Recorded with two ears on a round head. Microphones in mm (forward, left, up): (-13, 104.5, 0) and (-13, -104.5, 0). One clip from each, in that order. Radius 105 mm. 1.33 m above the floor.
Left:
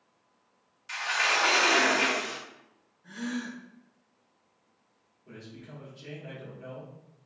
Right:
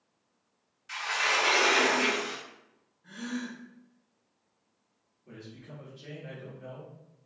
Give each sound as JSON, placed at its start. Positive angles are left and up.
{"t": 0.9, "sound": "a sliding door", "side_deg": 20, "distance_m": 0.7}
{"t": 3.0, "sound": "a gasp", "side_deg": 10, "distance_m": 1.4}
{"t": 5.2, "sound": "a man speaking", "side_deg": 15, "distance_m": 1.8}